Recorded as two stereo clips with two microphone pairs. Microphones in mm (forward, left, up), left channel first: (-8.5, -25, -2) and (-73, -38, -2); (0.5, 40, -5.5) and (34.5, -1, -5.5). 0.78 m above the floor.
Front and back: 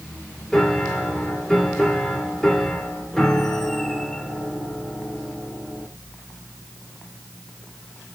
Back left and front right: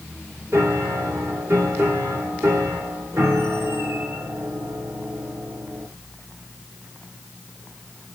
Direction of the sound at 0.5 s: 70° right.